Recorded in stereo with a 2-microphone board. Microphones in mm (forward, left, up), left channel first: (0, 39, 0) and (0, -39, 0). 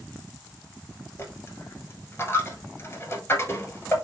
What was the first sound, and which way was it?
A dropped coin, 30° left (ahead or behind).